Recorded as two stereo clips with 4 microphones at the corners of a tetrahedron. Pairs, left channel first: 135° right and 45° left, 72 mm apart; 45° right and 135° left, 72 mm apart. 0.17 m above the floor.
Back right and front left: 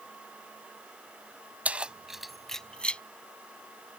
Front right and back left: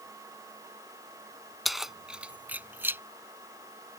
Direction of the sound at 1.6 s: 40° left.